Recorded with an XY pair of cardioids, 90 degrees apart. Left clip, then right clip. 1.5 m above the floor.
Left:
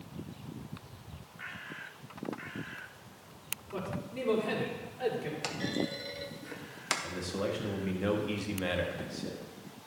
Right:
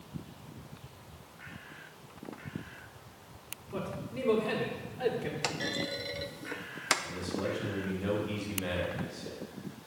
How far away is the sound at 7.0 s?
About 1.6 m.